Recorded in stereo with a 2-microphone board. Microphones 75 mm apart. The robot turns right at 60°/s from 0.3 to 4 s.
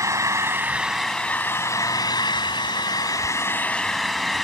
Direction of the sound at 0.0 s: 45° right.